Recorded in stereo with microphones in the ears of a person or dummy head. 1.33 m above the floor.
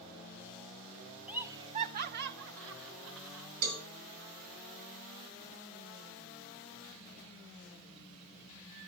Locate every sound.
1.3 s laughter: 5° right (ahead or behind), 0.8 m; by 3.5 s 85° right, 1.7 m
3.6 s a cowbell: 55° right (ahead or behind), 3 m